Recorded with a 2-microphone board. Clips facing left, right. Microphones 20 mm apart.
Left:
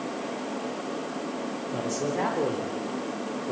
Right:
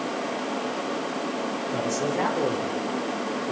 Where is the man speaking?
10° right (ahead or behind), 3.5 m; by 3.5 s centre (ahead or behind), 2.5 m.